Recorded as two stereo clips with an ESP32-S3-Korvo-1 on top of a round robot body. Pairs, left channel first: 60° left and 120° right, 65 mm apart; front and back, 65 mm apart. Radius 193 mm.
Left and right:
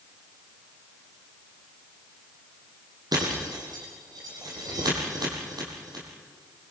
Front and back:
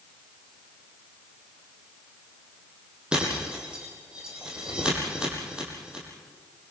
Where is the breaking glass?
105° right, 6.5 m.